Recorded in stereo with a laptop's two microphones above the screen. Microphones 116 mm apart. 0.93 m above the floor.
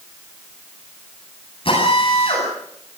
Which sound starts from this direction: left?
A drill, at 1.6 s.